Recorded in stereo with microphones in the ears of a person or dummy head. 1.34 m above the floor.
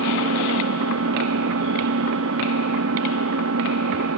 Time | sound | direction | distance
0.0 | an engine running | 80° right | ?